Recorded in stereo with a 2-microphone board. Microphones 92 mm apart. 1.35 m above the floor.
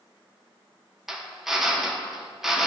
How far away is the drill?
About 0.7 m.